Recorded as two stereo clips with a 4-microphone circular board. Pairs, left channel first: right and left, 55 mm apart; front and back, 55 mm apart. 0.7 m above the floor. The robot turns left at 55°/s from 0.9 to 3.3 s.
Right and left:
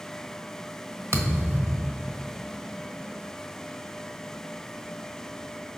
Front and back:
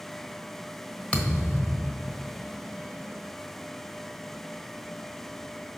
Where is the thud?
65° left, 1.2 m; by 2.4 s 5° right, 1.2 m.